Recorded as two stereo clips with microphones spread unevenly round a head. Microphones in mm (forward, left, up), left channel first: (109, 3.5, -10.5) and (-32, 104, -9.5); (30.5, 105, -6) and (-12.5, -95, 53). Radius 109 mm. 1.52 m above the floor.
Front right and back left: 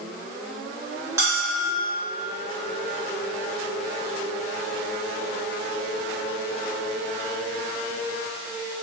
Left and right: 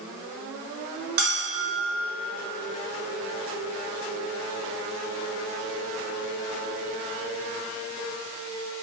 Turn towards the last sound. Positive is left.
turn(degrees=-140)